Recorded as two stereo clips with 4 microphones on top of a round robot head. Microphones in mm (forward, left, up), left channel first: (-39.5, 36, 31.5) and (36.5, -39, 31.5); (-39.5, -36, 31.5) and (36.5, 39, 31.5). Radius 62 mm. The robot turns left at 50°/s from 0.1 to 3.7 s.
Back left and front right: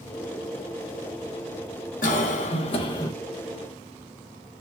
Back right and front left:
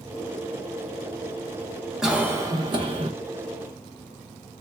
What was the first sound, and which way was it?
A cough, 130° left.